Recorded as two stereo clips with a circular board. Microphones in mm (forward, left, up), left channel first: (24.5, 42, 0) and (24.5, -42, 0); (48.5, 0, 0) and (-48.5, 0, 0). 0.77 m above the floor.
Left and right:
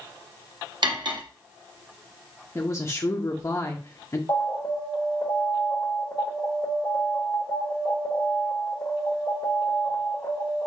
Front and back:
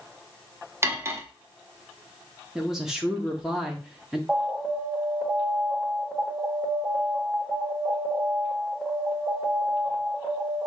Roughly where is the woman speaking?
Left.